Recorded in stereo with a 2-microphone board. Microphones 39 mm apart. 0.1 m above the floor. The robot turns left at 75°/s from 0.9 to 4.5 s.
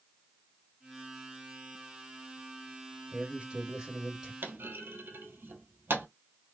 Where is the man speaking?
20° right (ahead or behind), 1.8 m; by 4.3 s 15° right (ahead or behind), 1.8 m.